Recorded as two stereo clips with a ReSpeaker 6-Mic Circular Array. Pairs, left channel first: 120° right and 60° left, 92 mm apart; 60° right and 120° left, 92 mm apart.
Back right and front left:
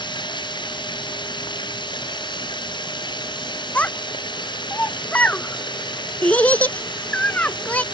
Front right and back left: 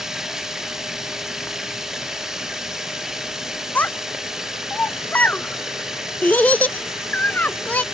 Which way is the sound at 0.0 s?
155° right.